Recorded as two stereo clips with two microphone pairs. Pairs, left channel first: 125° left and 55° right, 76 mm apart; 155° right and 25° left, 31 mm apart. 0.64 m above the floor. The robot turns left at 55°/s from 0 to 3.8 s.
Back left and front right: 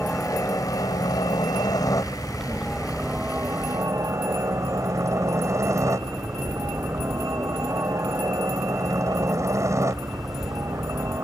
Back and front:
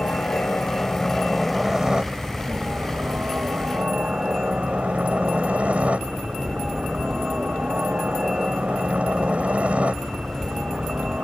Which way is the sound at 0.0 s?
160° right.